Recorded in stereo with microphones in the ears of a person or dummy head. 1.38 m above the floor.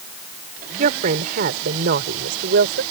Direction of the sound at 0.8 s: 45° right (ahead or behind).